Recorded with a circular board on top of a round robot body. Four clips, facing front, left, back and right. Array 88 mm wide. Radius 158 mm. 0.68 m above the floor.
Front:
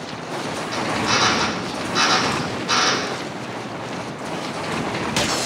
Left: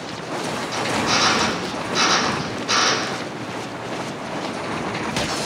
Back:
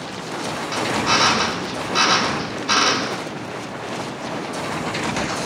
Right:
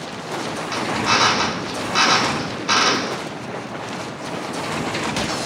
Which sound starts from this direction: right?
A drill, at 0.7 s.